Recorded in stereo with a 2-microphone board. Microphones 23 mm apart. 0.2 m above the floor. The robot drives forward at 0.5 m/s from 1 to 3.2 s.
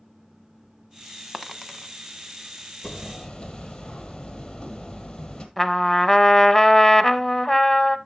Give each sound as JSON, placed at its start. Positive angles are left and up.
{"t": 1.3, "sound": "a dropped coin", "side_deg": -15, "distance_m": 0.7}
{"t": 2.8, "sound": "hammering", "side_deg": 30, "distance_m": 1.1}
{"t": 5.6, "sound": "a trumpet", "side_deg": 5, "distance_m": 0.6}